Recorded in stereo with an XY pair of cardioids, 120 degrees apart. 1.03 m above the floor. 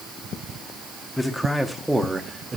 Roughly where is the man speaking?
Ahead.